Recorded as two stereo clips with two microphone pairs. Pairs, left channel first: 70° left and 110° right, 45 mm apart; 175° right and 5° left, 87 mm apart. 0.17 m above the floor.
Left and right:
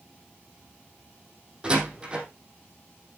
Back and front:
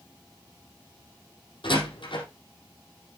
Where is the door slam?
Straight behind, 4 m.